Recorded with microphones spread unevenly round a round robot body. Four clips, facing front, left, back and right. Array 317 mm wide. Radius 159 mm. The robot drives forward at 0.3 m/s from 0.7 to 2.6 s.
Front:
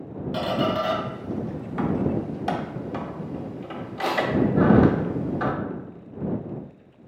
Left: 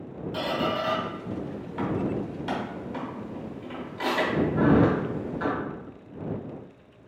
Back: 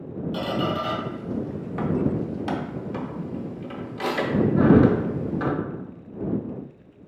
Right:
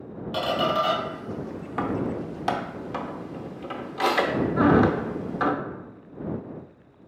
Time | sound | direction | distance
0.3 | a squeak | 60° right | 0.6 m